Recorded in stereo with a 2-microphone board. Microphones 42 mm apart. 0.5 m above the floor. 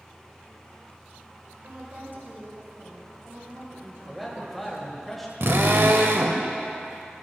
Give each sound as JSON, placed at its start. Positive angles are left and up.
{"t": 1.6, "sound": "a woman speaking", "side_deg": -55, "distance_m": 2.5}
{"t": 4.1, "sound": "a man speaking", "side_deg": 0, "distance_m": 2.5}
{"t": 5.4, "sound": "a drill", "side_deg": -70, "distance_m": 1.2}